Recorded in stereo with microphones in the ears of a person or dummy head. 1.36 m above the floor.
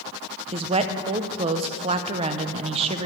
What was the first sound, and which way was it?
A woman speaking, 30° right (ahead or behind).